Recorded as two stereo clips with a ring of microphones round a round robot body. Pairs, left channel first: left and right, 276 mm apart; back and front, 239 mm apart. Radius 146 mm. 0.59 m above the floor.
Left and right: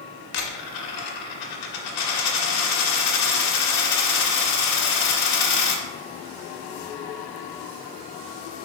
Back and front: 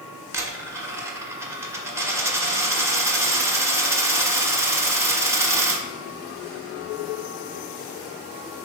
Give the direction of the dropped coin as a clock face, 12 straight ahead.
9 o'clock.